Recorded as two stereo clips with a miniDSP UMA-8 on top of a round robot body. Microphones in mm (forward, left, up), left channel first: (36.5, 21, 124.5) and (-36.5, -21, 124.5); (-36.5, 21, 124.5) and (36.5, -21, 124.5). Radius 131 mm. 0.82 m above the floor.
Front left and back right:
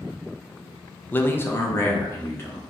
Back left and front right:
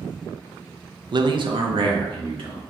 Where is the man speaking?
35° right, 0.5 m; by 2.6 s 30° right, 1.7 m.